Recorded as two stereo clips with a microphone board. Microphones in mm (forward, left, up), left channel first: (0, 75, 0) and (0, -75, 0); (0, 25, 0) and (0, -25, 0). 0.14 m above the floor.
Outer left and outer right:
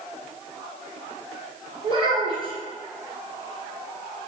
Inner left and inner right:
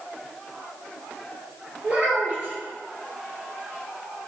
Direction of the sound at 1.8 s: 40° right (ahead or behind).